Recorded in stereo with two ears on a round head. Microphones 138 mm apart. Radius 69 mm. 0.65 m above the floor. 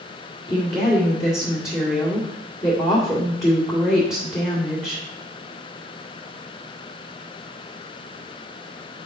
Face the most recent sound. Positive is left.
turn(degrees=25)  # may be behind; listen again after turning